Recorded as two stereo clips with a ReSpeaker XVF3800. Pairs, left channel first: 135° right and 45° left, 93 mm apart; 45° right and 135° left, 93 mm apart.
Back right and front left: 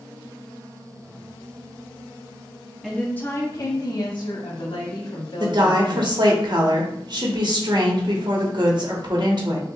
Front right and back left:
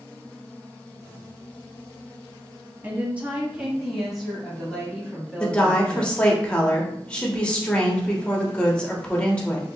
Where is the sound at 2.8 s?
135° left, 0.6 m; by 6.1 s 120° right, 2 m.